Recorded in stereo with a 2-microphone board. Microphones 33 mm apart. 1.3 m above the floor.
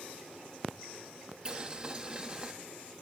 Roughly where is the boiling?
Right.